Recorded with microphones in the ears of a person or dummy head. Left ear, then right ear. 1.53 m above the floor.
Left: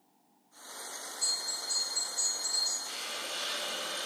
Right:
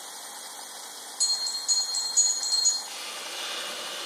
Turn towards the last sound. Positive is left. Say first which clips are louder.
# right 1 dB
turn(degrees=25)  # may be behind; listen again after turning